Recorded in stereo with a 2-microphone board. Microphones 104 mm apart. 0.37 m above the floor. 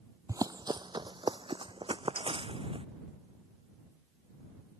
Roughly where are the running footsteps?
Right.